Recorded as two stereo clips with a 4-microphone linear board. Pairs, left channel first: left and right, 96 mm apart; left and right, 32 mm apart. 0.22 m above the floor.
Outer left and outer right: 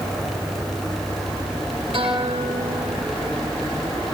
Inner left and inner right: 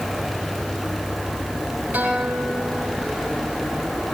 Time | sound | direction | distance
1.9 | a guitar | 65° right (ahead or behind) | 6 m